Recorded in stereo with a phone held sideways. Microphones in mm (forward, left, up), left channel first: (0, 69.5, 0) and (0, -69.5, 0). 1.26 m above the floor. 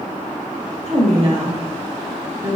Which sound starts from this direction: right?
A woman speaking, at 0.9 s.